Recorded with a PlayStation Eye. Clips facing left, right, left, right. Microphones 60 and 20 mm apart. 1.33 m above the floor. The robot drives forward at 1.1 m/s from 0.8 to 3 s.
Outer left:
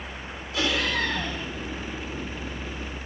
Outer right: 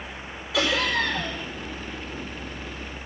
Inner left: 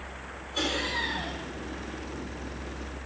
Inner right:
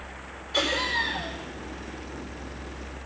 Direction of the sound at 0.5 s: 85° right.